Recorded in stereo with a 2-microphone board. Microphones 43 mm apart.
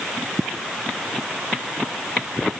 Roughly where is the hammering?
No hammering in this recording.